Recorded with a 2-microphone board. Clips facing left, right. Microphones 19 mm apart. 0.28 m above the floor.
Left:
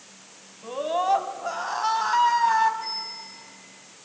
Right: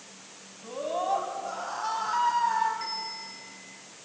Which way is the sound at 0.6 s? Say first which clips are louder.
Left 5 dB; 30° left (ahead or behind).